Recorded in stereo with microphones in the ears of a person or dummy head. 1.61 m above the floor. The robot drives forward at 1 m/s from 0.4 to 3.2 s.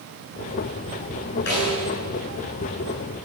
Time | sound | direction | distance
1.5 | a snare drum | 55° left (ahead or behind) | 9.5 m